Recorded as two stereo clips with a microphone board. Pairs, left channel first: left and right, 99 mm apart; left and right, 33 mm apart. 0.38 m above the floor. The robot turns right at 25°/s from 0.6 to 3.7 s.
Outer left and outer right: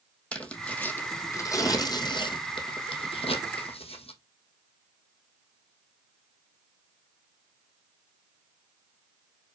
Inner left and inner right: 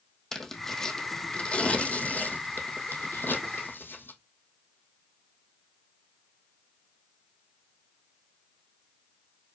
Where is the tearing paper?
15° left (ahead or behind), 2 m; by 4.1 s 85° left, 2 m.